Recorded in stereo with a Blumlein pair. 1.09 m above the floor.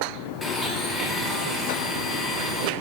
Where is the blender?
5° left, 1.1 m.